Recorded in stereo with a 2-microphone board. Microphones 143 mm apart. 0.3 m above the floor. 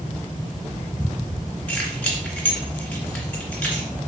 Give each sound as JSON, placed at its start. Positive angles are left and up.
{"t": 1.7, "sound": "keys jangling", "side_deg": 10, "distance_m": 2.5}